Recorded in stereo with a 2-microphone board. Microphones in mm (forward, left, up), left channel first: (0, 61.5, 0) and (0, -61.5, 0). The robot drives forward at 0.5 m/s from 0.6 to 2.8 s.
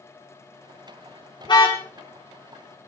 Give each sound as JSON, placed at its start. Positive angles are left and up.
{"t": 1.4, "sound": "a car horn", "side_deg": 40, "distance_m": 5.5}